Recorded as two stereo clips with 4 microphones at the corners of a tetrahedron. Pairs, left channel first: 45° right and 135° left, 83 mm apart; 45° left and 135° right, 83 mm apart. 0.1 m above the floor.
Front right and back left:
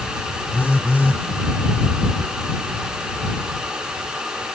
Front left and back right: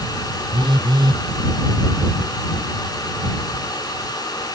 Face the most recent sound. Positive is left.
turn(degrees=-110)